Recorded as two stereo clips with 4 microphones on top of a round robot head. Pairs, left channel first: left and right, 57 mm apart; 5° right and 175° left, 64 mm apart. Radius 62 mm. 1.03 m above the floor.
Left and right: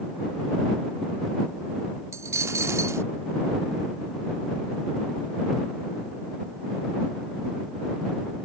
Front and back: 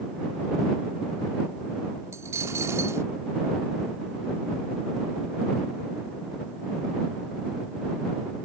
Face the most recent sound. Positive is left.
turn(degrees=-125)